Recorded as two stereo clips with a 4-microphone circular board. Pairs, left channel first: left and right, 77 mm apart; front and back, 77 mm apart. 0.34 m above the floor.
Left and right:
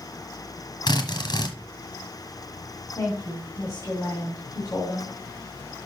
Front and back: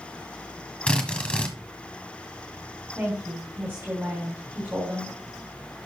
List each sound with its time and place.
0.9 s a drill: 75° left, 1.3 m
3.0 s a woman speaking: 125° left, 2.5 m